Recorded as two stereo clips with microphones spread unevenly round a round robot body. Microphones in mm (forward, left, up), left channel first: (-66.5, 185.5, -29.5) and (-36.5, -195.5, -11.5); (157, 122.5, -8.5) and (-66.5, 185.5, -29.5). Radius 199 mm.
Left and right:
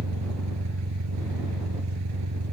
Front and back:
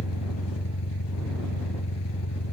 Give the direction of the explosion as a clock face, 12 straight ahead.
No explosion in this recording.